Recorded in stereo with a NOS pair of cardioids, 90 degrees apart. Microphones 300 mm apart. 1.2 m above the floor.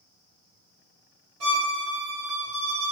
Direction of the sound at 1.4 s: 45° right.